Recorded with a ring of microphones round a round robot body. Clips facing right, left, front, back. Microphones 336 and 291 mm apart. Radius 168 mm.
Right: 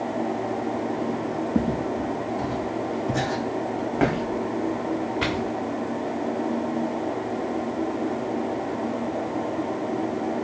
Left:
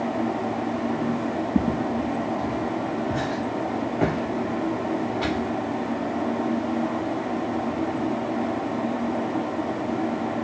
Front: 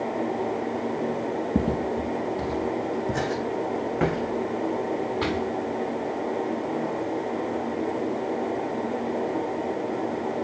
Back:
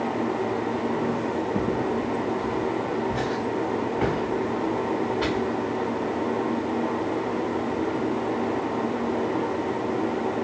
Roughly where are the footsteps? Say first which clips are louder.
Left 1 dB, front 2 dB; ahead.